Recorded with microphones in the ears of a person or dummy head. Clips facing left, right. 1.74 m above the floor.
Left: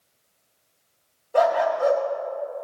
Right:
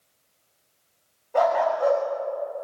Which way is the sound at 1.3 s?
5° left (ahead or behind).